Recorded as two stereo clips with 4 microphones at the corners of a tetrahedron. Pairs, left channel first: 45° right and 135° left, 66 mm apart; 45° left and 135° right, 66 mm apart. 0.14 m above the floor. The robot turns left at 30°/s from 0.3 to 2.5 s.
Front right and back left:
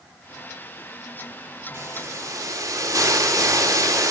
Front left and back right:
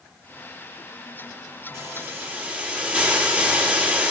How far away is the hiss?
About 5 m.